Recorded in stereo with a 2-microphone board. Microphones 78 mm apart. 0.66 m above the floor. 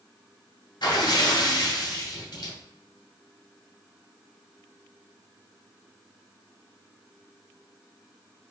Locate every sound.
0.8 s a splash: 75° left (ahead or behind), 1.8 m